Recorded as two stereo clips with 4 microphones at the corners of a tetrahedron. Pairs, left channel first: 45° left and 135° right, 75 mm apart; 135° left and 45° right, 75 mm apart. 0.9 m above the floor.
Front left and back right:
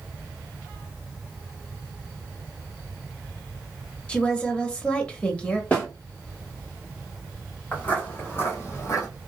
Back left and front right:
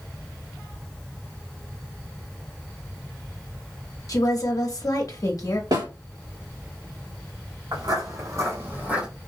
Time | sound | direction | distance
4.1 | a woman speaking | 120° left | 1.0 m
5.7 | a snare drum | 20° right | 2 m
7.7 | footsteps | 20° right | 2 m